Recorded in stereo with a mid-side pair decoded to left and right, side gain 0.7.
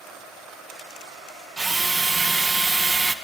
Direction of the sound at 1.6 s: 15° right.